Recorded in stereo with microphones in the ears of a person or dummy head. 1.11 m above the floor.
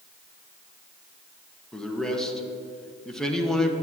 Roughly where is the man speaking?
Centre.